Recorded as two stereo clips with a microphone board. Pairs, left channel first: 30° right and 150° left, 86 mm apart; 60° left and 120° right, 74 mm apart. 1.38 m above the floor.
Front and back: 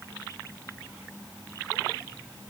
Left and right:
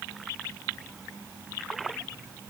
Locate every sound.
Only background noise.